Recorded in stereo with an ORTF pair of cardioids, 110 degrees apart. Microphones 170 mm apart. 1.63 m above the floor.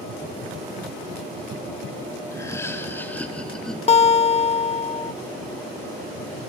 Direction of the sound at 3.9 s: 40° left.